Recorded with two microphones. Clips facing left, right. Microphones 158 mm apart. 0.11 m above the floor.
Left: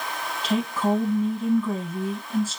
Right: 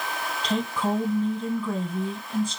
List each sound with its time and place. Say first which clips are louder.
0.4 s a woman speaking: left 3 dB; 5° left (ahead or behind), 1.2 m